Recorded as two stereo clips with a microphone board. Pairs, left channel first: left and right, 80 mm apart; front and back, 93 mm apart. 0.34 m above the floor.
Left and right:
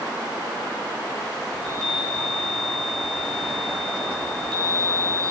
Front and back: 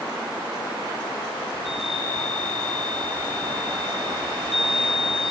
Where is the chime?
10° left, 7.5 m.